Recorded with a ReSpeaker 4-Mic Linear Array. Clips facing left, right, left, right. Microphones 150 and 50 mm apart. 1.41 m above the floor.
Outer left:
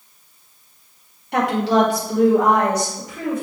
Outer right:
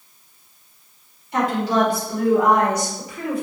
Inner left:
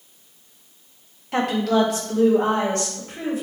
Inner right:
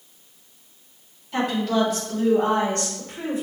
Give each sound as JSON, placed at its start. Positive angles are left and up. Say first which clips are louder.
{"t": 1.3, "sound": "a woman speaking", "louder": "outer left 2 dB, inner left 2 dB", "side_deg": 65, "distance_m": 0.8}